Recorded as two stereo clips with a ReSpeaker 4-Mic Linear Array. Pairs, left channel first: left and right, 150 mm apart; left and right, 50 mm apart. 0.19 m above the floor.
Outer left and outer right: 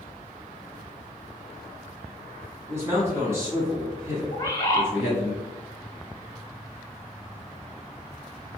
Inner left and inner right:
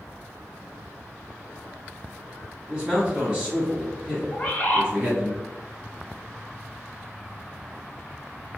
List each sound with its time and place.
2.7 s a man speaking: 15° right (ahead or behind), 1.4 m
4.3 s a bird: 25° left (ahead or behind), 0.8 m